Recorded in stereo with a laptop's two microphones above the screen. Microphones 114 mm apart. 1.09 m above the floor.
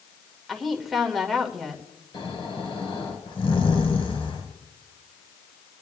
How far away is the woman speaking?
About 1.8 m.